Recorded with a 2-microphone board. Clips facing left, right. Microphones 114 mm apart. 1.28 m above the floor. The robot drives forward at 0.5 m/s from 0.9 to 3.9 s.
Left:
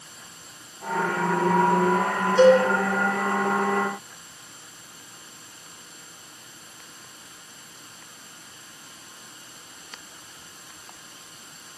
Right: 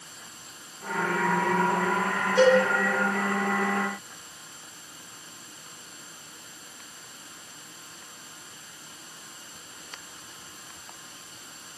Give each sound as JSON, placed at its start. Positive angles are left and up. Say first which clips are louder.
{"t": 2.4, "sound": "a cowbell", "louder": "left 4 dB", "side_deg": -70, "distance_m": 5.0}